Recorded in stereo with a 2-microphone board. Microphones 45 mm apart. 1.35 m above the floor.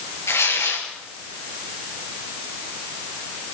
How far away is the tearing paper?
About 4 m.